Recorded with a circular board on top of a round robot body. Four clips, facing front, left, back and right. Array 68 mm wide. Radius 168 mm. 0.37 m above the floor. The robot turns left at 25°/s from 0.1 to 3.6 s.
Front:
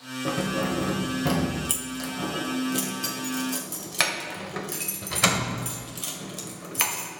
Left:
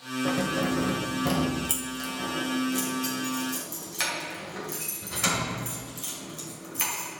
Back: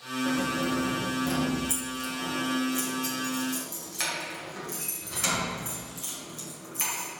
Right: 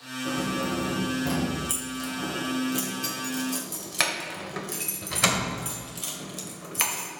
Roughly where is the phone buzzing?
I don't hear a phone buzzing.